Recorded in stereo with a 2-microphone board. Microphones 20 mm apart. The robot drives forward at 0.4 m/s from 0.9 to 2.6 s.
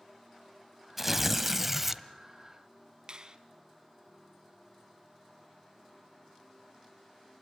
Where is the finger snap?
45° right (ahead or behind), 1.5 m.